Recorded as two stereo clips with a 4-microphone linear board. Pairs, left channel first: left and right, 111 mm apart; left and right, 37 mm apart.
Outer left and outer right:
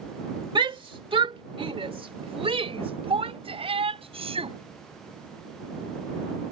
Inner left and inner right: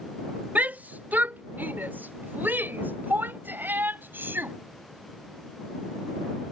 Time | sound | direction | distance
0.6 | a shout | 45° right (ahead or behind) | ?